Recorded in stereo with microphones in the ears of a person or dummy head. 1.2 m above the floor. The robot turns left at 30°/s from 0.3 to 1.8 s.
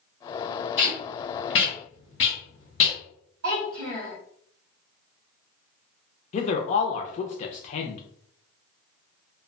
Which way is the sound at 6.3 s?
35° left (ahead or behind).